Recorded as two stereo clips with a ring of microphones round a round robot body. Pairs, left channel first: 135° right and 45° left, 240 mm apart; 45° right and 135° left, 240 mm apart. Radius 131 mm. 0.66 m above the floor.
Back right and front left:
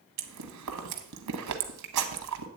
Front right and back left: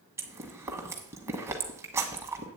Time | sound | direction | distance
0.2 | chewing | 55° left | 1.0 m